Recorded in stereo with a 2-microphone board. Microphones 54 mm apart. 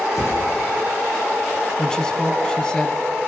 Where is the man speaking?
15° left (ahead or behind), 1.8 m.